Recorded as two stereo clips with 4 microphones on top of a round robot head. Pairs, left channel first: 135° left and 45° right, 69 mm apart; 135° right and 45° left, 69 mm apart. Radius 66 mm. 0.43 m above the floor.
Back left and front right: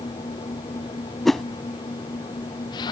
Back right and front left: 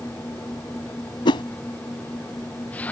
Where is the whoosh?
140° right.